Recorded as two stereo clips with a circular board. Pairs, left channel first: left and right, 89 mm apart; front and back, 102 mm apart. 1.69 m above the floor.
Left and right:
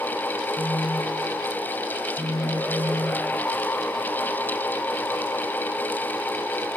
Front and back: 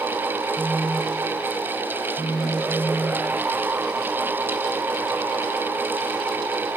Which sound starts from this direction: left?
A phone buzzing, at 0.6 s.